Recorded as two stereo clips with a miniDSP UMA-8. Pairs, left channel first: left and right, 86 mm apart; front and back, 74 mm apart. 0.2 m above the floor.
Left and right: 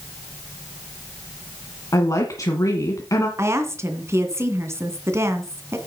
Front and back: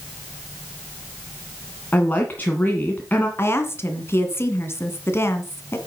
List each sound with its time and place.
1.9 s a woman speaking: 60° left, 1.6 m
3.4 s a woman speaking: 45° right, 2 m